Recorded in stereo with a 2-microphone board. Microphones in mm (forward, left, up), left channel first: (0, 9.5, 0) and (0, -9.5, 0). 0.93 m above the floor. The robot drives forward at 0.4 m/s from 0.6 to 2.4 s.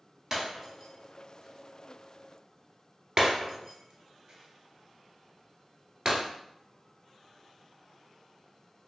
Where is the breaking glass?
30° right (ahead or behind), 1.3 m; by 6.2 s 35° right (ahead or behind), 1.0 m.